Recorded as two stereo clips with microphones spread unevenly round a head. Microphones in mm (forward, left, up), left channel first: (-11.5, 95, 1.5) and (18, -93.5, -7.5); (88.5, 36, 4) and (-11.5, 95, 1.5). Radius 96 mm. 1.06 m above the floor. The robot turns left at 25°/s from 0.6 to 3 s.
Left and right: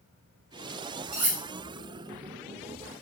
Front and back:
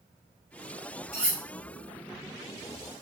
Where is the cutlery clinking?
110° right, 1.0 m; by 1.4 s 120° right, 1.0 m.